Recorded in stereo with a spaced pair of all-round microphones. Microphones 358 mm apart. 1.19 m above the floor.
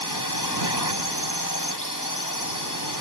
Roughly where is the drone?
Left.